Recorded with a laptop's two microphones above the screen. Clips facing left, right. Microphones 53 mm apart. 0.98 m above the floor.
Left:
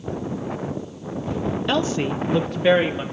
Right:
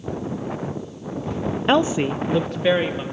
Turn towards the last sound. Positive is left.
turn(degrees=10)  # may be behind; listen again after turning